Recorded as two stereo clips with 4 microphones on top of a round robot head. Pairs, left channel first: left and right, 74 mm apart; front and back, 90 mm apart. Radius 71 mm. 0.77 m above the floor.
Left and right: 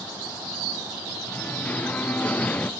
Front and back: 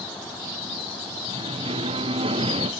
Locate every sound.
1.3 s singing: 160° left